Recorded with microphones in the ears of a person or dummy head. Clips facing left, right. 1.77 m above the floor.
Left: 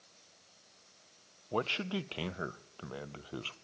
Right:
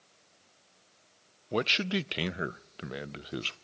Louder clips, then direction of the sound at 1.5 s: Right 4 dB; 25° right (ahead or behind).